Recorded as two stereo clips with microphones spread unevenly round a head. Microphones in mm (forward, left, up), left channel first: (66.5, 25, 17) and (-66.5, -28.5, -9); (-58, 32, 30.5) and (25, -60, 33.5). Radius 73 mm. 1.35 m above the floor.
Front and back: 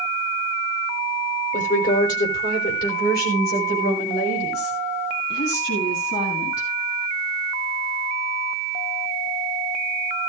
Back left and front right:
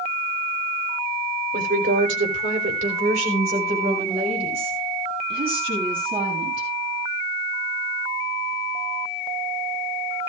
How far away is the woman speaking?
About 4 m.